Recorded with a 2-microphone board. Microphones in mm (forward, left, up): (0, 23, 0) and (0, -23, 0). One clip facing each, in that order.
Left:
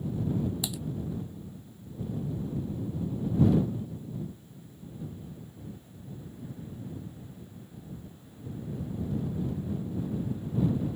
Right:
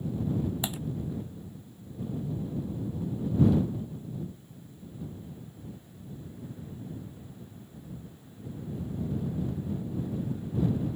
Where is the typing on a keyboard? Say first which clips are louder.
Right 2 dB; 35° right (ahead or behind).